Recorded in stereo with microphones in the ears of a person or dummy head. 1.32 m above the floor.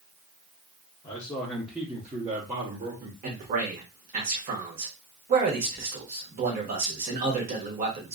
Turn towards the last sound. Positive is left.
turn(degrees=-45)  # may be behind; listen again after turning